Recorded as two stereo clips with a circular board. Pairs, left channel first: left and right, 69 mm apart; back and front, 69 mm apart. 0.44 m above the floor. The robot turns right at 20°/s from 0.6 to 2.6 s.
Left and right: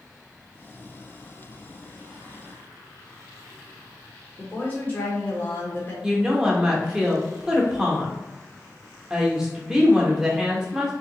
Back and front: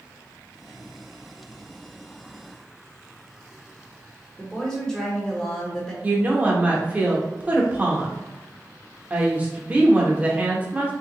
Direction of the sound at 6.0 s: 25° right.